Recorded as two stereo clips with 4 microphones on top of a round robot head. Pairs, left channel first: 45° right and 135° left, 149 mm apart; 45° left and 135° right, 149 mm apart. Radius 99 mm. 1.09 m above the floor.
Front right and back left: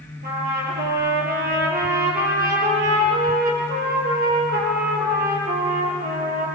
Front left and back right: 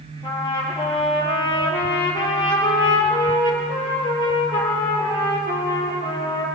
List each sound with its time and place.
0.2 s a trumpet: 105° left, 6 m